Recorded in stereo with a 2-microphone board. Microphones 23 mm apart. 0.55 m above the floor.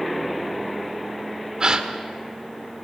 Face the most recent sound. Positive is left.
turn(degrees=-35)  # may be behind; listen again after turning